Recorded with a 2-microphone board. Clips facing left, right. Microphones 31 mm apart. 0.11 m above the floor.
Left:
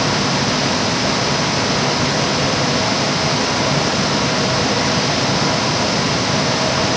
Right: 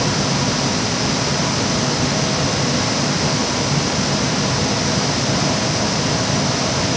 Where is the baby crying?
No baby crying in this recording.